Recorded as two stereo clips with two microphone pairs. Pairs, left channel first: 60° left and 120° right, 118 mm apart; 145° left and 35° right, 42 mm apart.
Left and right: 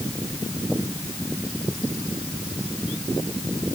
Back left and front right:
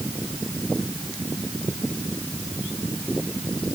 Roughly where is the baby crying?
No baby crying in this recording.